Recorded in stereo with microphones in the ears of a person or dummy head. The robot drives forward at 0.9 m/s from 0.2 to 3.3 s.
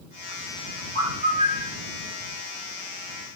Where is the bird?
30° right (ahead or behind), 1.5 m; by 1.8 s 20° right (ahead or behind), 2.0 m.